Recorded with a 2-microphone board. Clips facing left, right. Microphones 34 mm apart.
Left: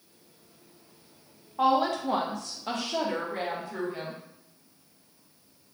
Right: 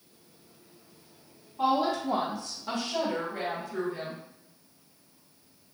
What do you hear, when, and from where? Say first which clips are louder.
1.6 s a woman speaking: left 2 dB; 70° left (ahead or behind), 0.9 m; by 4.2 s 45° left (ahead or behind), 1.7 m